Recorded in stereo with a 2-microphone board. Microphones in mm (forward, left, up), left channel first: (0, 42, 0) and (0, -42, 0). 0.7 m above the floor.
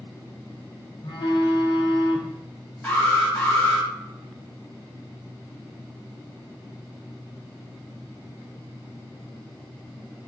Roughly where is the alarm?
Centre.